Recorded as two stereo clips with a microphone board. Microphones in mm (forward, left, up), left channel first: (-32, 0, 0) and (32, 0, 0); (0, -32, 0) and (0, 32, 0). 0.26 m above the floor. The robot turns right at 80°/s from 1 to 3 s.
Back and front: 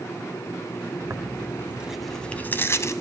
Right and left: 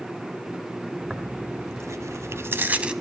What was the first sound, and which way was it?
Tearing paper, 15° left.